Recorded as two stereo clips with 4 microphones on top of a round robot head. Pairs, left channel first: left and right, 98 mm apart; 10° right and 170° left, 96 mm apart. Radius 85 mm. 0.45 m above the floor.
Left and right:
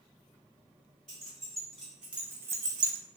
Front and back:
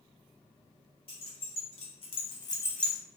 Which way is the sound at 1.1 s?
5° left.